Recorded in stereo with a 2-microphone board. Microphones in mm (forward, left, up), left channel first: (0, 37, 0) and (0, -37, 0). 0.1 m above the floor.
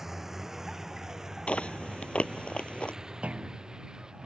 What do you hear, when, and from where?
0.0 s a vehicle: 5° right (ahead or behind); by 4.3 s 10° right (ahead or behind)
1.5 s chewing: 15° left (ahead or behind)
3.2 s a clunk: 15° right (ahead or behind)